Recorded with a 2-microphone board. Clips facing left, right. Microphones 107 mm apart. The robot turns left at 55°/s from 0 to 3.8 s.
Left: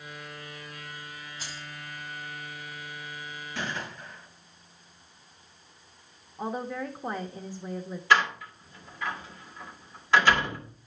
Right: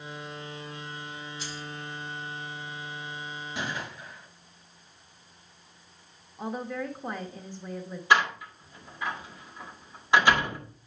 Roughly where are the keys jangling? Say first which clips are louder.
Right 3 dB; left.